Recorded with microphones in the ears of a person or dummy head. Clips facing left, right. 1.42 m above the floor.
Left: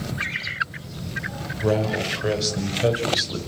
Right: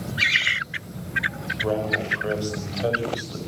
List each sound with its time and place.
1.6 s a man speaking: 25° left (ahead or behind), 5.5 m; by 3.4 s 30° left (ahead or behind), 7.5 m